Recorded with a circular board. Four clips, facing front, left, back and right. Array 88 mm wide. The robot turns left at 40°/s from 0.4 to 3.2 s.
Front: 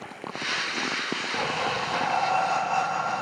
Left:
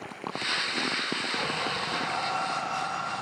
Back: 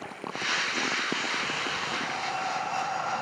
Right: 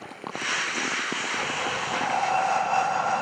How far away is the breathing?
About 3.5 m.